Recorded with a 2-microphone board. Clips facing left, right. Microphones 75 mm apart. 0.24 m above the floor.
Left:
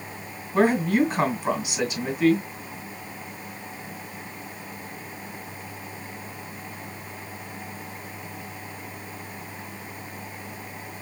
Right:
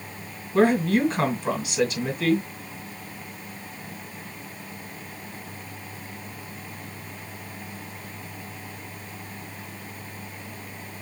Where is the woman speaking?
10° left (ahead or behind), 2.5 m.